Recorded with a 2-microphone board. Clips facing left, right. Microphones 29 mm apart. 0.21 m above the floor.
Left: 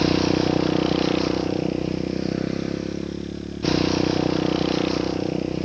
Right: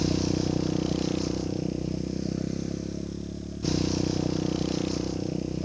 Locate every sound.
0.0 s a motorcycle: 40° left (ahead or behind); by 5.6 s 35° left (ahead or behind)